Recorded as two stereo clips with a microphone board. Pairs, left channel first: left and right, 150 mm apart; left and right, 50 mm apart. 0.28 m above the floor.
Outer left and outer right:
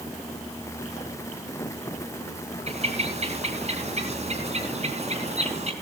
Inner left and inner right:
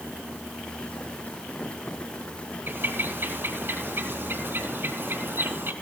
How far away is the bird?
About 3 m.